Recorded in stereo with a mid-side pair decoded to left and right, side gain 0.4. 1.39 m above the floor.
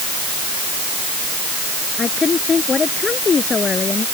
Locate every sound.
2.0 s a woman speaking: 40° left